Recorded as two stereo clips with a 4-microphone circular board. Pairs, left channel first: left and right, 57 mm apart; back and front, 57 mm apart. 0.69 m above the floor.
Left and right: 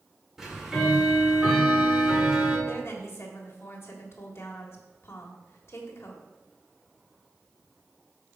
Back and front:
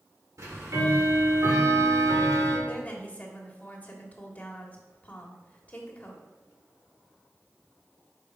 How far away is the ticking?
About 2.0 m.